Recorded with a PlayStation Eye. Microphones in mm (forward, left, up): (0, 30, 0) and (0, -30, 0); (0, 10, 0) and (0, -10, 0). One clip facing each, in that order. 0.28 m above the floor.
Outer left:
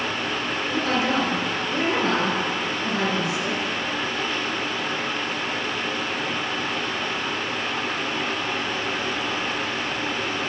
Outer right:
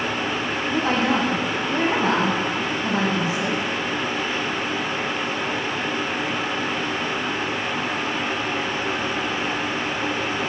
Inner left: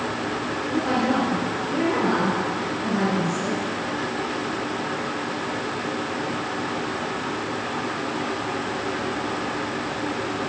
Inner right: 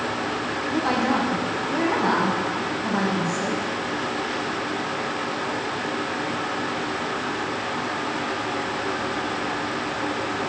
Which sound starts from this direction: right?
A woman speaking, at 0.7 s.